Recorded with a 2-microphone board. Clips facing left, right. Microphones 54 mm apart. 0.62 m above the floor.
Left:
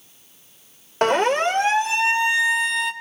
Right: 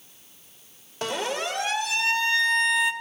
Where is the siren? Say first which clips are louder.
Left 10 dB; 55° left (ahead or behind), 3.5 m; by 2.9 s 5° right (ahead or behind), 2 m.